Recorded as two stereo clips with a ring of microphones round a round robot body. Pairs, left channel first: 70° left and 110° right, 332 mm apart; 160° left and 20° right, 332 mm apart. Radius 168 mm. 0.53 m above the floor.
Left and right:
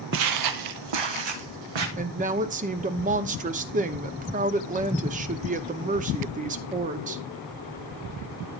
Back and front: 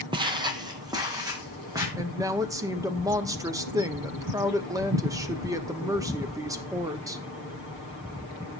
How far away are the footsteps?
About 0.6 m.